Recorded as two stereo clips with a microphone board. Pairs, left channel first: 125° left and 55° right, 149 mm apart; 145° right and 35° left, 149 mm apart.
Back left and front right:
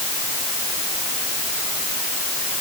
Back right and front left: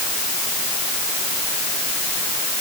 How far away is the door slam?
No door slam in this recording.